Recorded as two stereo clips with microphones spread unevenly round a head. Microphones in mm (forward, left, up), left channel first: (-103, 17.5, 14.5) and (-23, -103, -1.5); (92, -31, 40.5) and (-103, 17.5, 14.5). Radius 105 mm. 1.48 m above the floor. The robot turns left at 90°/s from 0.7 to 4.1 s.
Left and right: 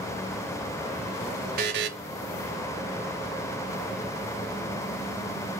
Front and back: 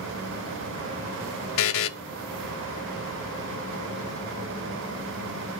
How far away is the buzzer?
About 0.5 m.